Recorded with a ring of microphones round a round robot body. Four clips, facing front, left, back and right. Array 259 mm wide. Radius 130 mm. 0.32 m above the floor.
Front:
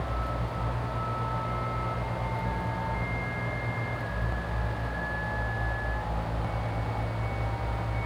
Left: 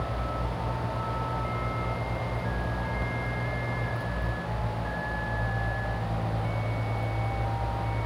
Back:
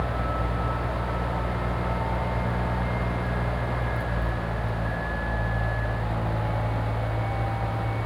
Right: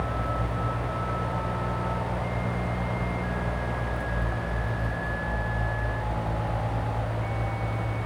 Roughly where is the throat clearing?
I don't hear throat clearing.